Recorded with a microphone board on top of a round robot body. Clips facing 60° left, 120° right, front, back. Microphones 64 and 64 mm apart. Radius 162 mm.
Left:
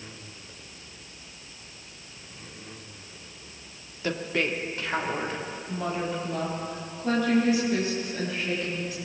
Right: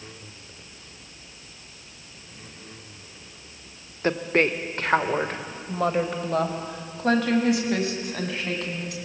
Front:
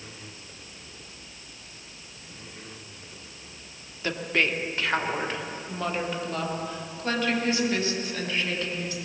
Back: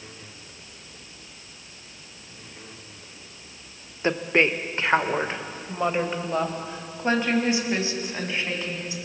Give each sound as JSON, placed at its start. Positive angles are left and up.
{"t": 4.0, "sound": "a woman speaking", "azimuth_deg": -135, "distance_m": 1.7}